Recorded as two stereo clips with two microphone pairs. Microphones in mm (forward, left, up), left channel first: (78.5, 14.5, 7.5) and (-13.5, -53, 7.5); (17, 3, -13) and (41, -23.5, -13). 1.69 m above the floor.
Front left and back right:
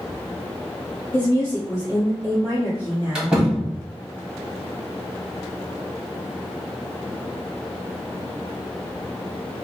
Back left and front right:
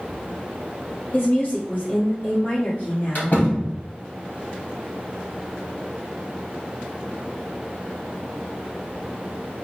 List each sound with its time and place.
1.1 s a woman speaking: 100° left, 1.4 m
3.1 s a door slam: 135° left, 1.4 m